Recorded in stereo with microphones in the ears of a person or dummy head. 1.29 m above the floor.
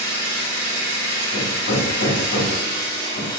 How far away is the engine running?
About 2.0 m.